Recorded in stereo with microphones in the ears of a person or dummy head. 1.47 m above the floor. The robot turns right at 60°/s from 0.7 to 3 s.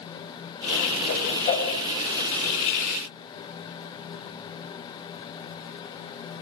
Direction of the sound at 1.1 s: 60° left (ahead or behind).